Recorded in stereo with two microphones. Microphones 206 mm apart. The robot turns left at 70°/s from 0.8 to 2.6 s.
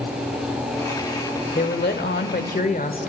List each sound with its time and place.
1.6 s a woman speaking: 125° left, 1.5 m; by 3.1 s 55° left, 1.5 m